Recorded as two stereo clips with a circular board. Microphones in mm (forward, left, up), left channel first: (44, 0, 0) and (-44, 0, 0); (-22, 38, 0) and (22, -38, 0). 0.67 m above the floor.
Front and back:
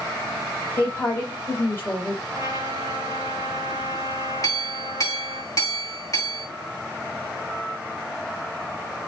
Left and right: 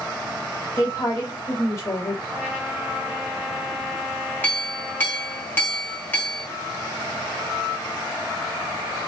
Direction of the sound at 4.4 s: 50° left.